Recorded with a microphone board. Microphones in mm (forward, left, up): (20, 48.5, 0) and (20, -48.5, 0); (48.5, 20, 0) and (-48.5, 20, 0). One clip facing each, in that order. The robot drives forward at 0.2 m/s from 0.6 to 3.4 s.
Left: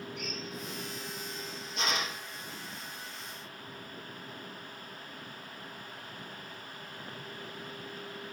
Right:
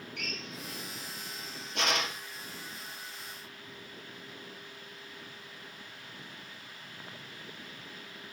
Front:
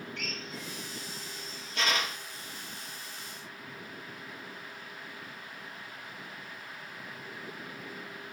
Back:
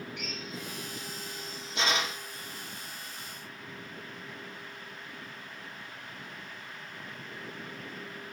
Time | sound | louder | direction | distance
0.2 | a drill | left 2 dB, back 1 dB | 105° right | 3 m